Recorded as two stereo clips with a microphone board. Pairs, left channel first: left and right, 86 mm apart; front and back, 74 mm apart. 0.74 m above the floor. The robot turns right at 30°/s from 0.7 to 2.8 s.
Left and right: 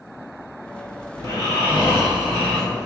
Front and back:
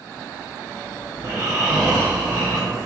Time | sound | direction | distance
1.2 | snoring | 130° left | 1.7 m